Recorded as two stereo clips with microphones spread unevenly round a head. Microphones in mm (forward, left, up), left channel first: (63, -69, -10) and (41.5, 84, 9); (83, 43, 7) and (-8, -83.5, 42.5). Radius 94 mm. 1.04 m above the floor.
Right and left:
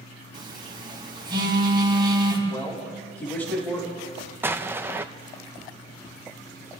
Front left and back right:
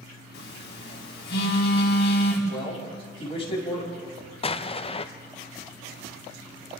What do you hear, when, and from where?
0.3 s a phone buzzing: 35° left, 5.5 m
2.5 s a man speaking: straight ahead, 8 m
4.4 s an explosion: 20° left, 1.0 m